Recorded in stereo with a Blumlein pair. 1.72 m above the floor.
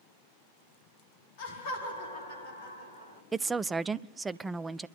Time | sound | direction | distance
1.4 | laughter | 50° left | 4.5 m
3.3 | a woman speaking | 10° right | 0.5 m